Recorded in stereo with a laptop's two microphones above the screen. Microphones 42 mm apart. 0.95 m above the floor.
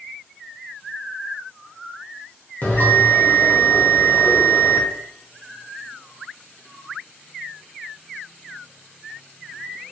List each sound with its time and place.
2.6 s a bell: 45° left (ahead or behind), 0.7 m